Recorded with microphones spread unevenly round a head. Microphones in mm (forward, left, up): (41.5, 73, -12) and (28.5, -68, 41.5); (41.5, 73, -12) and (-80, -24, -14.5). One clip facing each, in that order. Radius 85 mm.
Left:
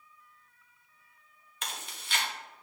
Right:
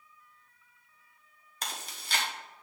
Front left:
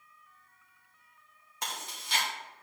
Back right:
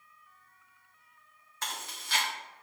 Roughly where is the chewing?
Ahead right.